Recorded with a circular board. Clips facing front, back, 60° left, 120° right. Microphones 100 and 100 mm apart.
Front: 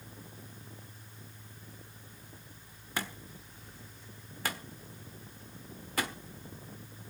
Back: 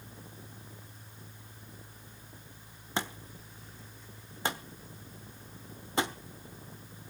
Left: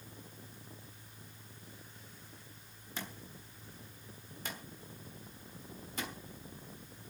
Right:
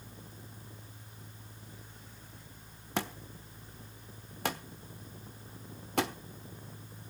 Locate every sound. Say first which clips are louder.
3.0 s a thud: back 3 dB, right 10 dB; 115° right, 1.1 m